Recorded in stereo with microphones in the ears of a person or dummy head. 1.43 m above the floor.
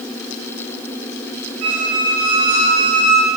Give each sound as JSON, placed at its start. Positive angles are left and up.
{"t": 1.6, "sound": "a squeak", "side_deg": -80, "distance_m": 3.0}